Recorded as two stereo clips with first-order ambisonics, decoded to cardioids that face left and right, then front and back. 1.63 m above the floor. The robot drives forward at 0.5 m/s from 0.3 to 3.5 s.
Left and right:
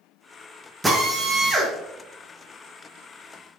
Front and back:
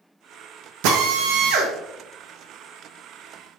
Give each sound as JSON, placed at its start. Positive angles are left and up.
{"t": 0.8, "sound": "a drill", "azimuth_deg": -175, "distance_m": 1.6}